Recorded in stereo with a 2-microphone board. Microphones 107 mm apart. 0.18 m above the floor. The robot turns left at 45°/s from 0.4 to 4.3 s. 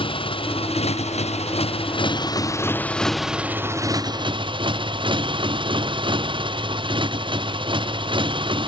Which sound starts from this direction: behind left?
A motorcycle, at 0.0 s.